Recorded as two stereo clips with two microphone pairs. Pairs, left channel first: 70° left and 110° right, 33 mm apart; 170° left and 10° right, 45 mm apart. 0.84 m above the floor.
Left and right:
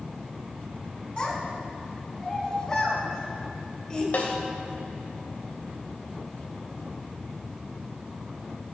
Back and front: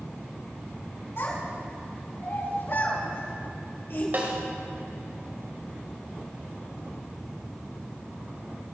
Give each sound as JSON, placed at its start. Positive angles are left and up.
{"t": 1.2, "sound": "a child speaking", "azimuth_deg": 135, "distance_m": 5.5}
{"t": 4.1, "sound": "a snare drum", "azimuth_deg": 35, "distance_m": 2.5}